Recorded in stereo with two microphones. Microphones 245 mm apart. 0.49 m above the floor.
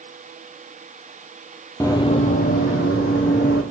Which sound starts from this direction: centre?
Running footsteps, at 1.8 s.